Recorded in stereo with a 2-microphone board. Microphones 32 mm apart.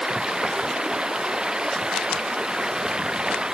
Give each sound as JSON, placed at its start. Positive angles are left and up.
{"t": 0.0, "sound": "running water", "side_deg": -25}